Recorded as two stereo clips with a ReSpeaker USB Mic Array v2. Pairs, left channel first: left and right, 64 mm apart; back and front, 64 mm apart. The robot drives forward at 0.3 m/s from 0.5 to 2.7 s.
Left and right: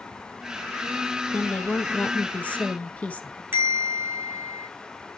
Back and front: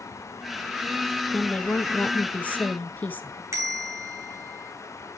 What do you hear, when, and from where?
1.3 s a woman speaking: 110° left, 1.2 m; by 3.4 s 140° left, 1.3 m
3.5 s a bell: 35° right, 2.5 m